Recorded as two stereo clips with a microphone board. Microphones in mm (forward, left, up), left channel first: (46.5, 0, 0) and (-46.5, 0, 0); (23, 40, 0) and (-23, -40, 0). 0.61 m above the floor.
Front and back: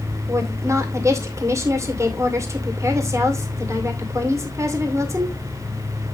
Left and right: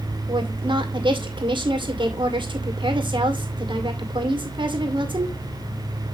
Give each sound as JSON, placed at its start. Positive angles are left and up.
{"t": 0.3, "sound": "a woman speaking", "azimuth_deg": -130, "distance_m": 2.0}